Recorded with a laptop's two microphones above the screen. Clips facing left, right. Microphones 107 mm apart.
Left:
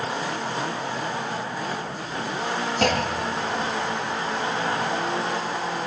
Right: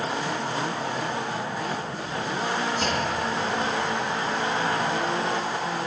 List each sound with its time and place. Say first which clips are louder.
2.8 s a clunk: left 3 dB; 75° left (ahead or behind), 1.0 m